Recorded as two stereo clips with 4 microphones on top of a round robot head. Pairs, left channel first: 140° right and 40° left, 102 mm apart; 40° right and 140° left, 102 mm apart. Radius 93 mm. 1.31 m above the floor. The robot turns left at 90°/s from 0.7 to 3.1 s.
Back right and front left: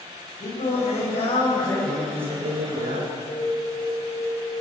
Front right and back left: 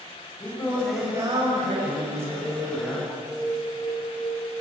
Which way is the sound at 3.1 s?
70° left.